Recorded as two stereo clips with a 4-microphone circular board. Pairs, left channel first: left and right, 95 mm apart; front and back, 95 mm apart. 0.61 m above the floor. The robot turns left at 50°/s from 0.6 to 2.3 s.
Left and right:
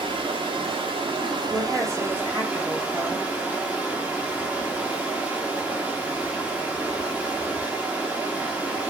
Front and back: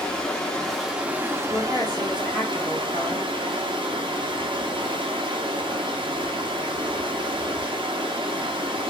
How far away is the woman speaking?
About 1.3 m.